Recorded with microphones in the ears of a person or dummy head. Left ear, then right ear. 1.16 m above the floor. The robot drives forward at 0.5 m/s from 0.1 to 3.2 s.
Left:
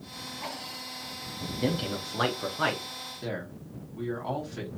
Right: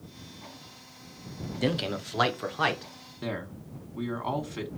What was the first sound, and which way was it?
A man speaking, 25° right (ahead or behind).